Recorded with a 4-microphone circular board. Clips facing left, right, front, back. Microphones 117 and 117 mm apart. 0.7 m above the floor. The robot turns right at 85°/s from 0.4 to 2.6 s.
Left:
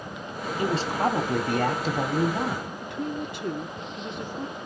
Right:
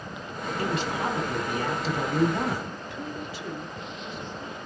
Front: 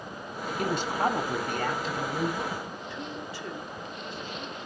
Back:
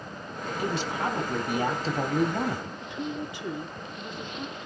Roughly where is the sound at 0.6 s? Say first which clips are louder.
Left 4 dB, front 2 dB; ahead.